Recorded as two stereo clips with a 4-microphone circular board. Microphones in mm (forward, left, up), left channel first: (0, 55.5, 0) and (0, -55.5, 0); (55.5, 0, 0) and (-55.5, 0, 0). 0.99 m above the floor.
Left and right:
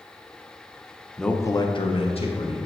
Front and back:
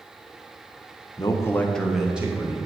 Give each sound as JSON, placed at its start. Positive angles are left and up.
{"t": 1.2, "sound": "a man speaking", "azimuth_deg": 0, "distance_m": 0.7}